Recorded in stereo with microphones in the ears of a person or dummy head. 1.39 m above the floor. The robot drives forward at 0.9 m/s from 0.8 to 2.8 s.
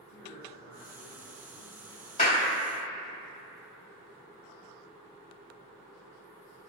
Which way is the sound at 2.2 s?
35° left (ahead or behind).